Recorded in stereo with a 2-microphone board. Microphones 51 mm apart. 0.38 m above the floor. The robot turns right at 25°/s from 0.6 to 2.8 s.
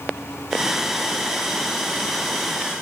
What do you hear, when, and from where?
Only background noise.